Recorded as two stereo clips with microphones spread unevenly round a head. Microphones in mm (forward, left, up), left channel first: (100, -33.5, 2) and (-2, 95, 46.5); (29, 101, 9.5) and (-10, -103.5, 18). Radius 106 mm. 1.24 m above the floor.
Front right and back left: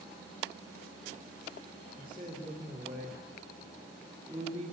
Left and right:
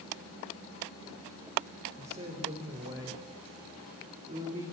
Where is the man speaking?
160° right, 4 m.